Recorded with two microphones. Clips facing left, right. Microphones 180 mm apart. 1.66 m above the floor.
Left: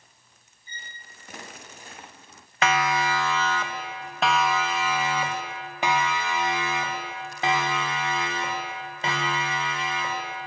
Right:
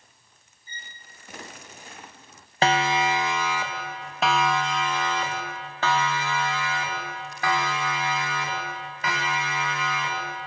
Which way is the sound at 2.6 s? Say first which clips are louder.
Right 2 dB; 30° right (ahead or behind).